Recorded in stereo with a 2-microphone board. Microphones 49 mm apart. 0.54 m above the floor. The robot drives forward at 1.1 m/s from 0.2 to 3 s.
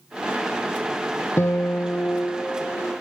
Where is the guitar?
80° left, 1.0 m; by 2.9 s 30° left (ahead or behind), 2 m.